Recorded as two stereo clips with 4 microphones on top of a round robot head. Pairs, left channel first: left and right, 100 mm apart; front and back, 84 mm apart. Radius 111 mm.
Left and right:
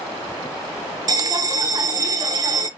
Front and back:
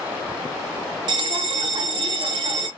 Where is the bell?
145° right, 0.6 m.